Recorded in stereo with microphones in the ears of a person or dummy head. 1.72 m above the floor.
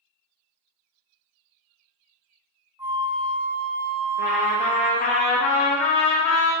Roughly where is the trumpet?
Left.